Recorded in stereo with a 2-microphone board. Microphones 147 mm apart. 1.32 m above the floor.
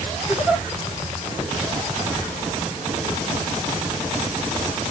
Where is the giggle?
10° right (ahead or behind), 2 m.